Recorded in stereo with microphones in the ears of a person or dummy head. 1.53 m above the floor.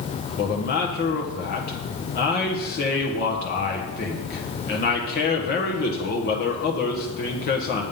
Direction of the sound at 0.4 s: 50° left (ahead or behind).